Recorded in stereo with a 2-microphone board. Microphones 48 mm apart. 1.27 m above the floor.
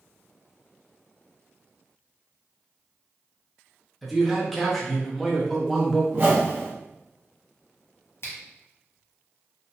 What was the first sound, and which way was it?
A man speaking, centre (ahead or behind).